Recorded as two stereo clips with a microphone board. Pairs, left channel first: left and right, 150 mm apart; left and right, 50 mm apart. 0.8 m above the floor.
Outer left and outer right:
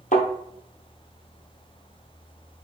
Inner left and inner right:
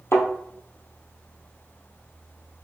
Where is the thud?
55° left (ahead or behind), 1.3 m.